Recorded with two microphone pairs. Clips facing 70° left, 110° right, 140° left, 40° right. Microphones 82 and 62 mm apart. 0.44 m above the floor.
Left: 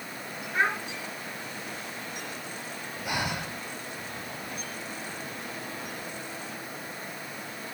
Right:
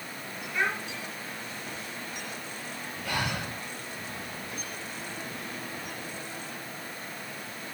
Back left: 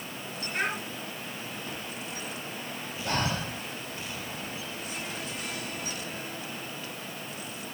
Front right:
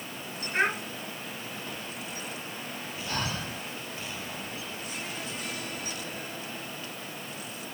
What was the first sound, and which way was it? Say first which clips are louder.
A child speaking: left 3 dB, front right 4 dB; 20° left.